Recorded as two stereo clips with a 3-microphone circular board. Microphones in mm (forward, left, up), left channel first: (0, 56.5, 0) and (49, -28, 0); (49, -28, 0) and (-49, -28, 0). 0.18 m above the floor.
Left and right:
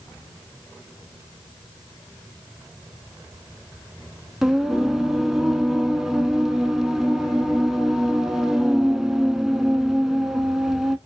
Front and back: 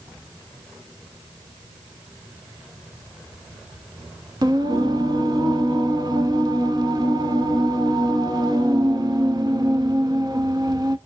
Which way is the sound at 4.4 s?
145° right.